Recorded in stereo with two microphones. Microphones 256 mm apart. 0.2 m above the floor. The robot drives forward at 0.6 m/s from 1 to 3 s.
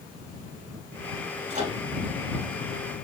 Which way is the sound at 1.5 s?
30° right (ahead or behind).